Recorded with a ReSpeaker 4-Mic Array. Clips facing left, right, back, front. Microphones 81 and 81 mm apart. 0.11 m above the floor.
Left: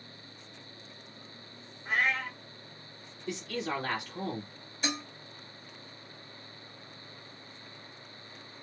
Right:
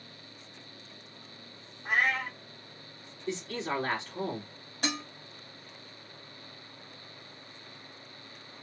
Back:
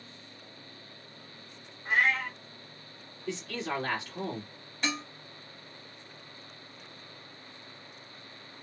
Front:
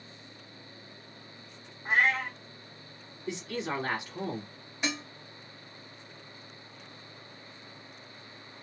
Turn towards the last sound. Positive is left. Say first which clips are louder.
# right 1 dB, even
turn(degrees=-75)